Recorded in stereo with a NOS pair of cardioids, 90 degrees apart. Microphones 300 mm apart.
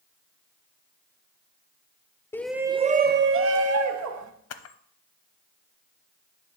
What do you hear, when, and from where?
2.3 s a shout: 10° left, 0.7 m; by 4.3 s 65° right, 1.4 m
4.5 s a camera shutter: 55° left, 0.8 m